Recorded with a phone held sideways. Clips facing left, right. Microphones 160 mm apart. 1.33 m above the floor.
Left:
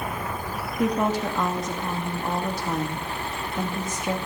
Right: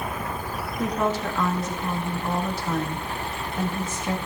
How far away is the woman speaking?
About 2 m.